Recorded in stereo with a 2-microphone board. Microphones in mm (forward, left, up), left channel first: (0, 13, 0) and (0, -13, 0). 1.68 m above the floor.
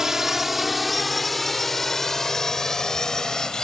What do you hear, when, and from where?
0.0 s a drone: 15° right (ahead or behind); by 3.6 s 30° left (ahead or behind)